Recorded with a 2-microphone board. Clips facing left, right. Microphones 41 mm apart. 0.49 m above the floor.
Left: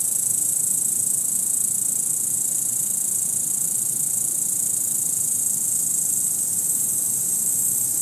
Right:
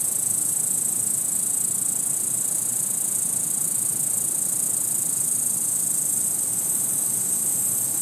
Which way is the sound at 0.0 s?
60° left (ahead or behind).